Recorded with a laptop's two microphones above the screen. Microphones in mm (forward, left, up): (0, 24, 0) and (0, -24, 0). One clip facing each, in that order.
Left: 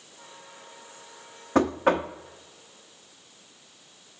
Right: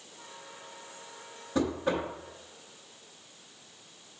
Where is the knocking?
55° left (ahead or behind), 0.6 m.